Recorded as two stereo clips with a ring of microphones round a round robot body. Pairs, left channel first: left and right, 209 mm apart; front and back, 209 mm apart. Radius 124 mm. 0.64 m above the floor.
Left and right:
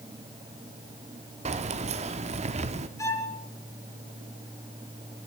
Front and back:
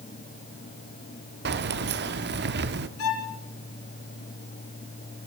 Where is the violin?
15° left, 3 m.